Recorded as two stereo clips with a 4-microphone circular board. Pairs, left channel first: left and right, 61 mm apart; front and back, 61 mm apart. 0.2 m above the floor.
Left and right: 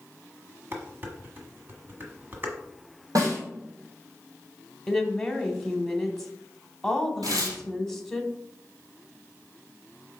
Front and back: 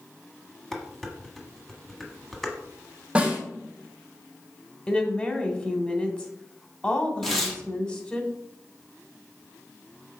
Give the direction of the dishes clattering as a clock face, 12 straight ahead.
3 o'clock.